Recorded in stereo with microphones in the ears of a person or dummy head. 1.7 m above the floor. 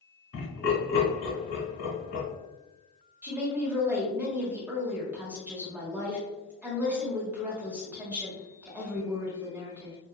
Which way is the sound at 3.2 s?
10° right (ahead or behind).